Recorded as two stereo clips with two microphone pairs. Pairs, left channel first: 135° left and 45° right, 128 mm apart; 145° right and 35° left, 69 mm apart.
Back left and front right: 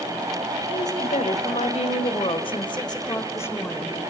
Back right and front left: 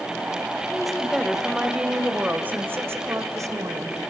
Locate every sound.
0.7 s a woman speaking: 130° left, 2.5 m; by 4.0 s 55° left, 1.9 m